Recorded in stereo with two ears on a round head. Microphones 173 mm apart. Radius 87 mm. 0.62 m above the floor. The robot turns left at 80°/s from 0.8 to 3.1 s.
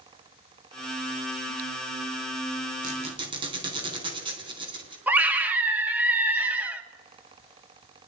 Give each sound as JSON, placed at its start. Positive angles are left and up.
{"t": 2.8, "sound": "a squeak", "side_deg": -50, "distance_m": 3.5}
{"t": 5.1, "sound": "a scream", "side_deg": -10, "distance_m": 1.2}